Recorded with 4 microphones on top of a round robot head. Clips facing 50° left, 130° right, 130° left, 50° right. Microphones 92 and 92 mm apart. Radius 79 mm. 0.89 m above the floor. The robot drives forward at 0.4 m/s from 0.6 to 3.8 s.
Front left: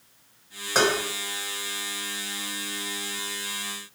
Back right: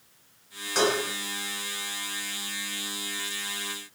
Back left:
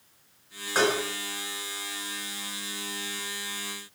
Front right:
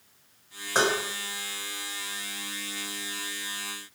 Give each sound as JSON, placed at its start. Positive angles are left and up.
{"t": 0.8, "sound": "dishes clattering", "azimuth_deg": 15, "distance_m": 3.5}